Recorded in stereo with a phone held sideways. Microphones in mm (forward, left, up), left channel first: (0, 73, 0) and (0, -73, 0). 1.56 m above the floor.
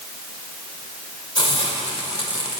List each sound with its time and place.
1.4 s a hiss: 40° left (ahead or behind), 1.5 m